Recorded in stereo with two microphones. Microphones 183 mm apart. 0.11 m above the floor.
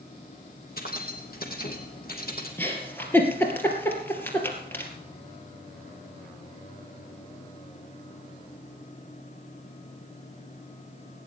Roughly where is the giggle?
Centre.